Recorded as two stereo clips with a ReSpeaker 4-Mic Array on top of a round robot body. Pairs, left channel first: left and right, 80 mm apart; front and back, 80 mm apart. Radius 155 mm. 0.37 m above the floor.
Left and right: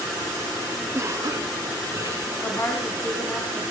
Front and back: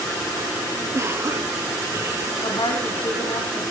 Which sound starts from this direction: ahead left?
A woman speaking, at 2.4 s.